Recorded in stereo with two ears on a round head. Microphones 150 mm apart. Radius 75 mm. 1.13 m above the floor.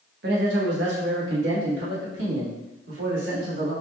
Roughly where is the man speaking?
Right.